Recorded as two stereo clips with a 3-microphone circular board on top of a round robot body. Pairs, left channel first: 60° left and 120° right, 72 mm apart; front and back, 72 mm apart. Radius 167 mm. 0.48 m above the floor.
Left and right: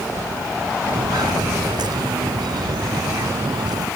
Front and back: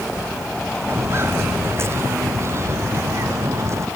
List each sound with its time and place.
0.9 s footsteps: 130° right; by 3.9 s 135° right